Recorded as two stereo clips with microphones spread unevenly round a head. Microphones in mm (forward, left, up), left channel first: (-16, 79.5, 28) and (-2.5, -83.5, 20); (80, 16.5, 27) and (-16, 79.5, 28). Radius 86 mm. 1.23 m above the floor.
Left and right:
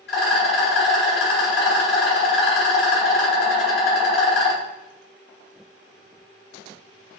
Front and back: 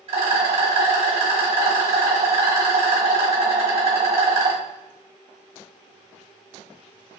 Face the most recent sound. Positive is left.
turn(degrees=120)